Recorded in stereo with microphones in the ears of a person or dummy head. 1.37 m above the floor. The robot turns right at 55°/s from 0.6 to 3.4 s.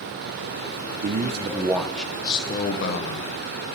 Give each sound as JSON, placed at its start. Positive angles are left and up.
{"t": 1.0, "sound": "a man speaking", "azimuth_deg": -50, "distance_m": 0.5}